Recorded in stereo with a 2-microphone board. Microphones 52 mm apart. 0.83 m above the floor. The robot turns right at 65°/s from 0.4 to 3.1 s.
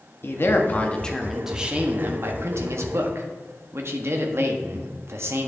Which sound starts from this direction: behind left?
A man speaking, at 0.2 s.